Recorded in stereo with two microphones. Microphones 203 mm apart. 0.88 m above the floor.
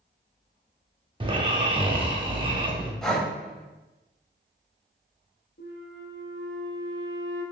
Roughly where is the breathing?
Centre.